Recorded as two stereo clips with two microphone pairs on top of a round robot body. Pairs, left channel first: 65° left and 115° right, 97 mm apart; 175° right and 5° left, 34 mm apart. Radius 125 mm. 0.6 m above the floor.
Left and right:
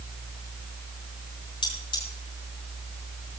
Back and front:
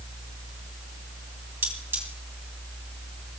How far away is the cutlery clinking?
About 3 m.